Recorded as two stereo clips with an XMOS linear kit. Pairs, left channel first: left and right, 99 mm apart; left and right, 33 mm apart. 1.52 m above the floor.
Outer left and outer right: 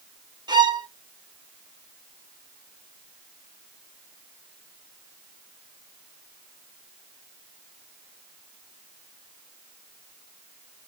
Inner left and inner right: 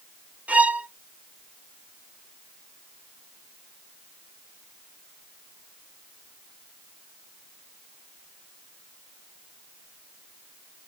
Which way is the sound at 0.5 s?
45° right (ahead or behind).